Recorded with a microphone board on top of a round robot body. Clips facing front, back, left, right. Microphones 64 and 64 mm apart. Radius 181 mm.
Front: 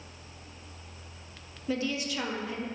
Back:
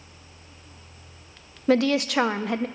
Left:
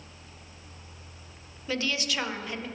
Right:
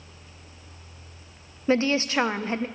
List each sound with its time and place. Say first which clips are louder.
1.7 s a woman speaking: back 11 dB, right 8 dB; 150° right, 0.7 m